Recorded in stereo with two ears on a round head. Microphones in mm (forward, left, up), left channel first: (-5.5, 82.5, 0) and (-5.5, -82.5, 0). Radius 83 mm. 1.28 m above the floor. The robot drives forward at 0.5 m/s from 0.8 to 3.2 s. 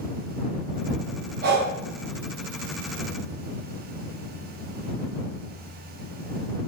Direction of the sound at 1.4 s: 50° right (ahead or behind).